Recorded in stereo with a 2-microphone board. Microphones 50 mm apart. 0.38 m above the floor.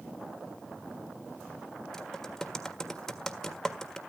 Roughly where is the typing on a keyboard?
Centre.